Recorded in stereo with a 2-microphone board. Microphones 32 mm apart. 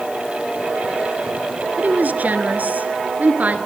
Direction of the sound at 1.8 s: 60° right (ahead or behind).